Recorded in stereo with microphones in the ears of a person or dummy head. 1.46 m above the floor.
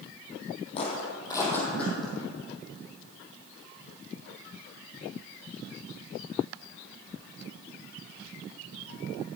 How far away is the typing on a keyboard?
I don't hear typing on a keyboard.